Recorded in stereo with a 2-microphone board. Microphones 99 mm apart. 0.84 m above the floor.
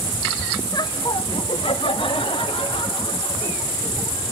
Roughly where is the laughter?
Left.